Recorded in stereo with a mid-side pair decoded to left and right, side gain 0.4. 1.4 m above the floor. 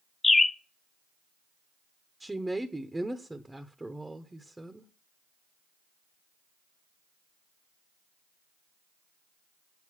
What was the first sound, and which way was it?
A bird, 25° left.